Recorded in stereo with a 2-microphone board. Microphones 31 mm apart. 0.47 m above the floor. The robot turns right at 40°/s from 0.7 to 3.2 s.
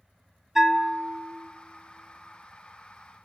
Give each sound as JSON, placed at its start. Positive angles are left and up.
{"t": 0.6, "sound": "a bell", "side_deg": -10, "distance_m": 0.5}